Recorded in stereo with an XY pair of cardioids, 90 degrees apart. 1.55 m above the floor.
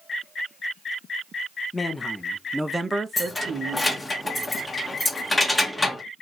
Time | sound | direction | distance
1.7 | a man speaking | 25° left | 1.0 m
3.2 | keys jangling | 20° left | 1.3 m